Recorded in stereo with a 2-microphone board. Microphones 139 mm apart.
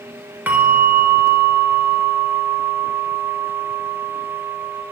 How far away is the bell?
About 0.9 m.